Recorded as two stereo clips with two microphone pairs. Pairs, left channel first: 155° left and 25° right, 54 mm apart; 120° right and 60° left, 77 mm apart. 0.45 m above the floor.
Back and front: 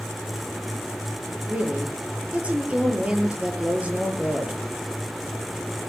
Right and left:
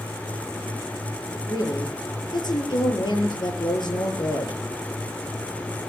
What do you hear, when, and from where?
1.5 s a woman speaking: 95° right, 8 m